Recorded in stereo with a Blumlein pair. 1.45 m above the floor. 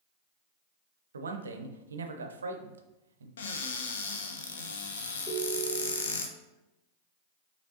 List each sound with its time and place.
1.1 s a man speaking: 70° right, 0.6 m
3.4 s a cupboard door: 65° left, 0.7 m
5.3 s a ringtone: 10° right, 1.3 m